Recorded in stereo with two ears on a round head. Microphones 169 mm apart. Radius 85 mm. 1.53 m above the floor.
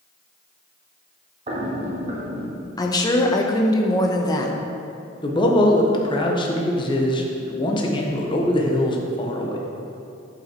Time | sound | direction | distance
1.5 | footsteps | 35° right (ahead or behind) | 1.9 m
2.8 | a woman speaking | 20° left (ahead or behind) | 1.0 m
5.2 | a man speaking | 25° left (ahead or behind) | 1.2 m